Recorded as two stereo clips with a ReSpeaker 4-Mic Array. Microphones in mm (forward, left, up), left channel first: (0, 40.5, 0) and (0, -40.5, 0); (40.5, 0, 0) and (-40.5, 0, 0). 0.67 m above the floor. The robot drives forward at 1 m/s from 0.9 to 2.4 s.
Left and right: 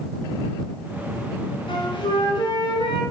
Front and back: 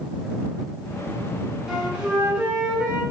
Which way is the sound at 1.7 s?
100° left.